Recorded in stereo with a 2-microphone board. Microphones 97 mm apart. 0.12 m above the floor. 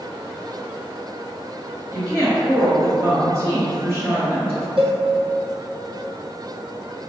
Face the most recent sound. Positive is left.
turn(degrees=-75)  # may be behind; listen again after turning